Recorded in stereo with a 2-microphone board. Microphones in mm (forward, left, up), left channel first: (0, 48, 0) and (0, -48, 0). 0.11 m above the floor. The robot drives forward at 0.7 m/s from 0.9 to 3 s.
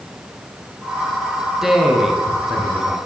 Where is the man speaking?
5° right (ahead or behind), 1.1 m.